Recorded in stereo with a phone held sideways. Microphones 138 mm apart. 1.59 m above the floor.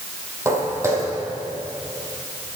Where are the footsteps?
20° right (ahead or behind), 4 m.